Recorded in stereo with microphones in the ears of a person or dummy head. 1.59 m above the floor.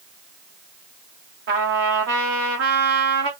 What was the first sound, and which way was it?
A trumpet, 55° right (ahead or behind).